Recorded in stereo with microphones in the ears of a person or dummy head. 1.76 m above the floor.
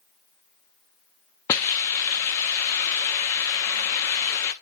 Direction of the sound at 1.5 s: 15° left (ahead or behind).